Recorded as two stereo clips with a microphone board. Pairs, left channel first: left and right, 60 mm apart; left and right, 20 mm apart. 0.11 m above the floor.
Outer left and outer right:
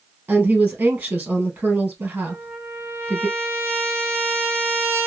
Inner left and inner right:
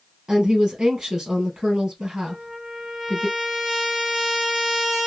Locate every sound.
0.3 s a woman speaking: 35° right (ahead or behind), 2.0 m
2.3 s a trumpet: 35° right (ahead or behind), 1.4 m